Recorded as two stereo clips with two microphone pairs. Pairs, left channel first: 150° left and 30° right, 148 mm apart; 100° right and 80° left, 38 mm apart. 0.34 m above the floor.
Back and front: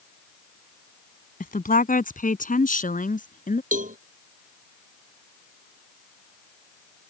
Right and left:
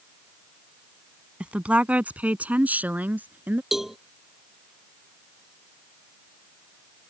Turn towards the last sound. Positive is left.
turn(degrees=0)